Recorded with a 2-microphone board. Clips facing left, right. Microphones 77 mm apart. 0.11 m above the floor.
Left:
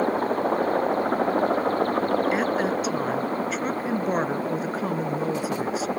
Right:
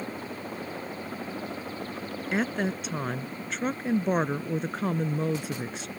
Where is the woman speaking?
Centre (ahead or behind).